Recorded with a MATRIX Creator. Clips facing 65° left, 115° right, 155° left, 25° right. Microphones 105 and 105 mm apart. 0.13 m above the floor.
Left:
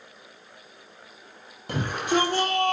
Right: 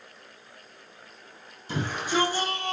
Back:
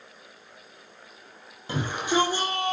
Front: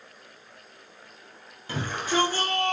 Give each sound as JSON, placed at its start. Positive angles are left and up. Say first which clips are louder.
{"t": 1.7, "sound": "a shout", "louder": "left 3 dB, back 2 dB", "azimuth_deg": 90, "distance_m": 4.5}